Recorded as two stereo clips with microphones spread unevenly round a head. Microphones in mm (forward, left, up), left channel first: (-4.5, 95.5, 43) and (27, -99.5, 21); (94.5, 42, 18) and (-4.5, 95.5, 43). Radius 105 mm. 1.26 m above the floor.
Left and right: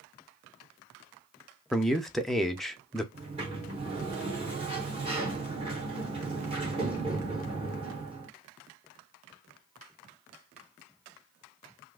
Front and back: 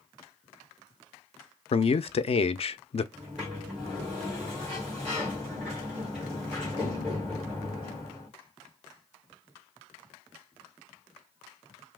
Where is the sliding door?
140° right, 1.1 m.